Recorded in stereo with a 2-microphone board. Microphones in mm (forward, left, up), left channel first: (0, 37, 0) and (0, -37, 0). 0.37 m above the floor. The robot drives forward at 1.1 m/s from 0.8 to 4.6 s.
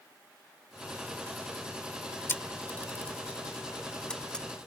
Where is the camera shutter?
30° left (ahead or behind); by 4.5 s 10° left (ahead or behind).